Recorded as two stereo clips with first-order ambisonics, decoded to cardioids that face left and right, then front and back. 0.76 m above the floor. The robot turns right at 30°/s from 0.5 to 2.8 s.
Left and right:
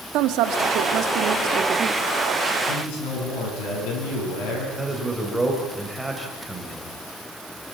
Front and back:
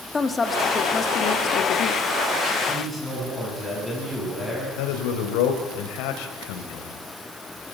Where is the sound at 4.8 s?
5° right, 3 m.